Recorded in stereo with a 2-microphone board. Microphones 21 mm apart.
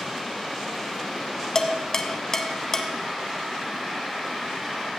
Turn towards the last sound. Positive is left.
turn(degrees=30)  # may be behind; listen again after turning